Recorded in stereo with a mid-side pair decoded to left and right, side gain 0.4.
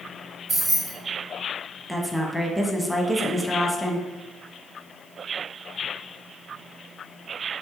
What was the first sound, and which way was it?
Keys jangling, 70° right.